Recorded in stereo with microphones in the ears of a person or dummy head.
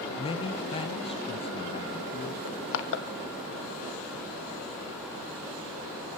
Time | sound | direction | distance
0.2 | a man speaking | 30° left (ahead or behind) | 1.2 m
2.5 | crushing | 70° left (ahead or behind) | 1.6 m